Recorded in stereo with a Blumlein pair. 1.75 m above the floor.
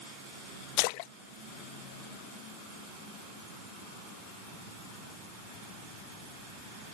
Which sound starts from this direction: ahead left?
A splash, at 0.8 s.